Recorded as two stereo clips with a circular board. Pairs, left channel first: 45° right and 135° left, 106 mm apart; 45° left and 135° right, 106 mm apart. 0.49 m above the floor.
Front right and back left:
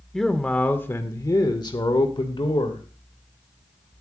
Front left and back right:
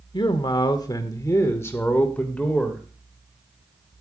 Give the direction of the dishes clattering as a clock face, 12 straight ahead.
No dishes clattering in this recording.